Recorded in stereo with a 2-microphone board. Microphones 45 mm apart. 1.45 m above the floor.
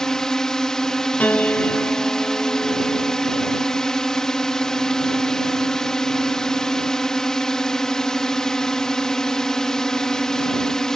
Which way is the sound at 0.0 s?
15° left (ahead or behind).